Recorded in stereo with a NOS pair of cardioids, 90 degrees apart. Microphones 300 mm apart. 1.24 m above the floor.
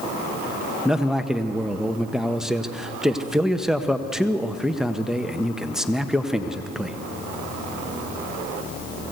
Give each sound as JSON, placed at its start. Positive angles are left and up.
{"t": 0.8, "sound": "a man speaking", "azimuth_deg": 0, "distance_m": 1.2}